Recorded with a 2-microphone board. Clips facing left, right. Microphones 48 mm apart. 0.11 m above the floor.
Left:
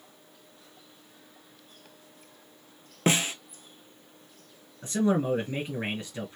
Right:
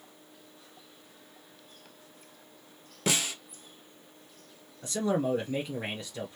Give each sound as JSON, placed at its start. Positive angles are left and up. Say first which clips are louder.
{"t": 3.1, "sound": "a snare drum", "louder": "left 5 dB", "side_deg": 35, "distance_m": 0.7}
{"t": 4.8, "sound": "a man speaking", "louder": "left 3 dB", "side_deg": 30, "distance_m": 1.9}